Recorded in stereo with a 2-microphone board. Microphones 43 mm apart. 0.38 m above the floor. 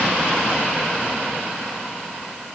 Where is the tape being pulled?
I don't hear tape being pulled.